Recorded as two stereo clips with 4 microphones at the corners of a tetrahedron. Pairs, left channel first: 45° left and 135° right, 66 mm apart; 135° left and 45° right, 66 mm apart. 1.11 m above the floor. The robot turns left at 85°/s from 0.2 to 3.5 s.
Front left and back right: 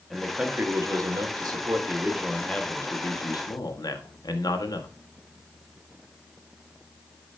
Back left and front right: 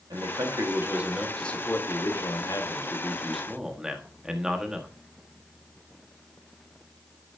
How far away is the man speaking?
About 1.6 m.